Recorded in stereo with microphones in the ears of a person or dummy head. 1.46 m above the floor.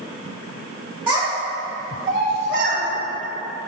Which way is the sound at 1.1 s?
30° right (ahead or behind).